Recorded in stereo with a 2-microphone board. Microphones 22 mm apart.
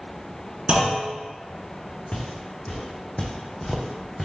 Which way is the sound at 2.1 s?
80° left.